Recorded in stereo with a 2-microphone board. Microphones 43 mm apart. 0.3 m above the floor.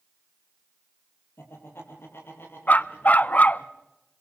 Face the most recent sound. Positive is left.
turn(degrees=40)  # may be behind; listen again after turning